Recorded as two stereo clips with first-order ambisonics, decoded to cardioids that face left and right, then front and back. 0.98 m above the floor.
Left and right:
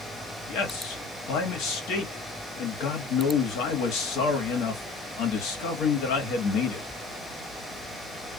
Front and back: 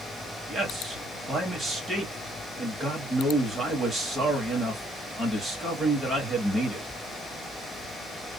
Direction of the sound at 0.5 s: 100° left.